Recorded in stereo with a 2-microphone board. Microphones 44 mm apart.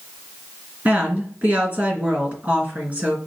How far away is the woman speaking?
About 3 m.